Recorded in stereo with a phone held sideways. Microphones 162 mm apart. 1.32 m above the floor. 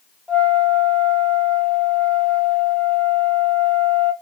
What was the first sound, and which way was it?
A flute, 5° left (ahead or behind).